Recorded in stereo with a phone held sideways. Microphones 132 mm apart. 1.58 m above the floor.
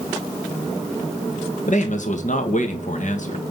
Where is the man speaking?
65° left (ahead or behind), 1.8 m.